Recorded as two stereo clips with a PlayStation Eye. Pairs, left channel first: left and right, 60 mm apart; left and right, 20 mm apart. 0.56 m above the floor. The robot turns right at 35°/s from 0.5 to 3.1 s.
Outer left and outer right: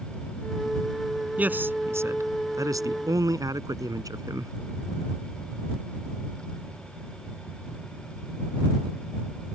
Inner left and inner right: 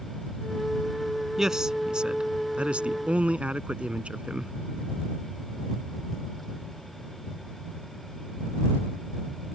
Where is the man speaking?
155° right; by 4.5 s 95° right.